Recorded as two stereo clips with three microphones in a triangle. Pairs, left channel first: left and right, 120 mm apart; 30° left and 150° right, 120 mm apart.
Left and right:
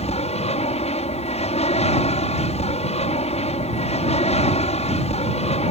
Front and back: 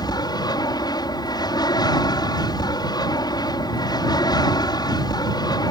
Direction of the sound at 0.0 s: 80° left.